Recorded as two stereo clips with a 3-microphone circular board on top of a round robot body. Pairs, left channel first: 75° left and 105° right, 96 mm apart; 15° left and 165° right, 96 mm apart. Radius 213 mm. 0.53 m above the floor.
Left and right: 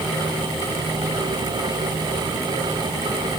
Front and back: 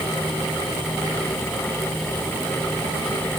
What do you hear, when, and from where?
Only background noise.